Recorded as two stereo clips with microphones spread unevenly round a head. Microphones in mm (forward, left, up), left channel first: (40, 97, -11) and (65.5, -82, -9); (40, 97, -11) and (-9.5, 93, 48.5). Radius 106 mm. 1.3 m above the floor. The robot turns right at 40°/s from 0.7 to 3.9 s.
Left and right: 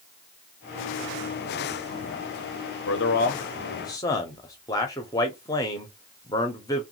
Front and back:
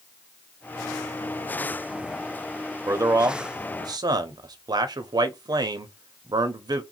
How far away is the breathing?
No breathing in this recording.